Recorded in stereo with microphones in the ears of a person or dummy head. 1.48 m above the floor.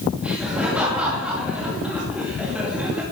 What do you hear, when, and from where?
0.2 s laughter: 10° right (ahead or behind), 2 m